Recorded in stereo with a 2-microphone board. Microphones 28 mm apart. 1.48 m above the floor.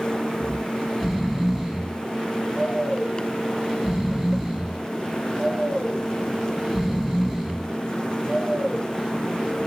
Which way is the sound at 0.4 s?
5° right (ahead or behind).